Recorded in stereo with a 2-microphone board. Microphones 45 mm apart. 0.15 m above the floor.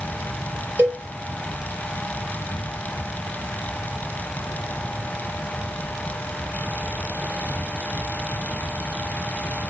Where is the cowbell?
45° right (ahead or behind), 1.6 m.